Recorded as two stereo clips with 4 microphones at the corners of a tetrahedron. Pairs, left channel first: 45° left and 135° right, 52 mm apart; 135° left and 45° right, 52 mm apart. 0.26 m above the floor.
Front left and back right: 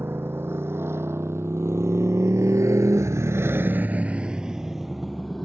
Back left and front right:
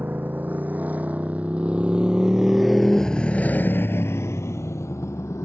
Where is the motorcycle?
95° right; by 5.4 s 130° left.